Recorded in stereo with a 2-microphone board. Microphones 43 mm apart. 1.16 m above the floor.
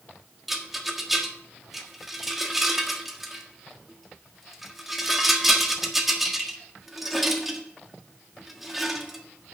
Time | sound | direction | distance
0.5 | a rattle | 5° right (ahead or behind) | 1.5 m